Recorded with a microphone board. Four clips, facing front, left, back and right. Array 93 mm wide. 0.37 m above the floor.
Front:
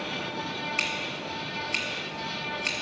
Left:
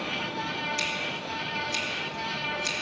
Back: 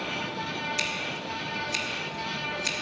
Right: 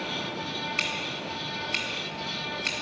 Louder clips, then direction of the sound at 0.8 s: Even, even; 45° right.